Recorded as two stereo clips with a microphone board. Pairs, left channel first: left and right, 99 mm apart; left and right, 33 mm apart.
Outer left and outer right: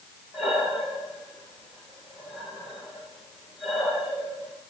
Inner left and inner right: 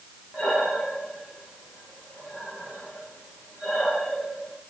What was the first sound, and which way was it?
Breathing, 5° right (ahead or behind).